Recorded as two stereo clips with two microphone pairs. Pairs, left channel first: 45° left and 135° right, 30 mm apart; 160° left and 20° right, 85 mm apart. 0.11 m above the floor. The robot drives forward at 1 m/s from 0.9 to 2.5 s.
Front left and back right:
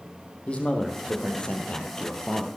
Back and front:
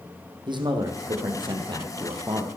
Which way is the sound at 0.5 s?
5° right.